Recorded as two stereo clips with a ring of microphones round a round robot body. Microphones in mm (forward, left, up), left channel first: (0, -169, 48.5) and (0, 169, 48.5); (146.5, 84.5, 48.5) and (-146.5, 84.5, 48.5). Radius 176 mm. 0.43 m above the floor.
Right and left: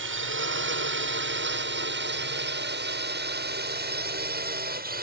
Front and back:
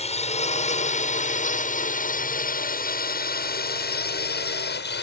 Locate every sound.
0.0 s a drone: 55° left; by 5.0 s 35° left